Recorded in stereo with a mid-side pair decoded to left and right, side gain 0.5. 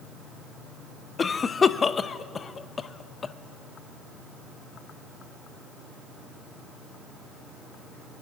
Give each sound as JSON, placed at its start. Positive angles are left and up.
{"t": 1.2, "sound": "a cough", "azimuth_deg": 35, "distance_m": 0.6}